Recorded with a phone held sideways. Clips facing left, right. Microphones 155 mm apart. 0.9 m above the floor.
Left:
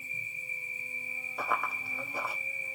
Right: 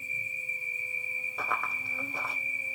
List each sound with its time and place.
0.0 s an insect: 5° right (ahead or behind), 1.7 m
1.4 s running footsteps: 5° left (ahead or behind), 0.9 m